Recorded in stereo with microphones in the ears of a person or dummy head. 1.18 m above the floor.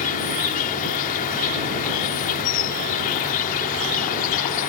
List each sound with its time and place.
0.0 s an insect: 45° left (ahead or behind)